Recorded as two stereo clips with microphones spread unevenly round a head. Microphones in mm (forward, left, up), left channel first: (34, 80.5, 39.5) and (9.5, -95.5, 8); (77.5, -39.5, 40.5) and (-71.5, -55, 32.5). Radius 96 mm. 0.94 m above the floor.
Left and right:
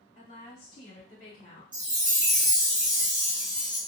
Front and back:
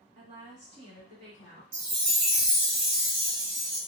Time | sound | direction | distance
0.1 | a woman speaking | 135° left | 2 m
1.7 | a chime | 165° right | 1.6 m